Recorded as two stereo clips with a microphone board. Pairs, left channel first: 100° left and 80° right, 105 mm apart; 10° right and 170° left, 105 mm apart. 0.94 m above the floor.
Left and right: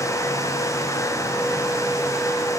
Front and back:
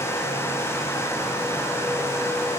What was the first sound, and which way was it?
Only background noise.